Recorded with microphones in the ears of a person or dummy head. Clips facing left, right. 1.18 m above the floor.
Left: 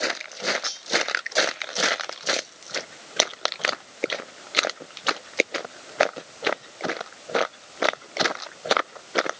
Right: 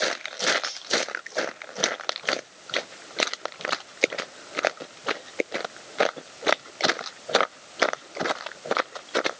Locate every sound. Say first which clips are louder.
0.6 s cutlery clinking: even; centre (ahead or behind), 1.1 m